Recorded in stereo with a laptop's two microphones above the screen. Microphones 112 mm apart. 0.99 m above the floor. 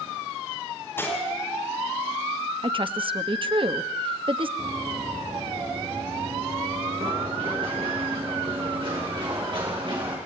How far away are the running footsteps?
About 4.5 m.